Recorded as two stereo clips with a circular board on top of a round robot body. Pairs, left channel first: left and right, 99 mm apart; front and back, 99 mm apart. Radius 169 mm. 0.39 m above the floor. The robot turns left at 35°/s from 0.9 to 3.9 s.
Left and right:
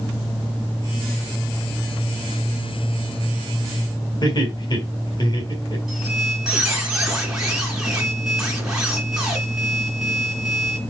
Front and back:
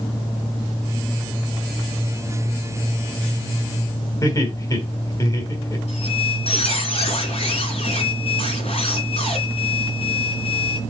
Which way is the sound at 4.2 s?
50° left.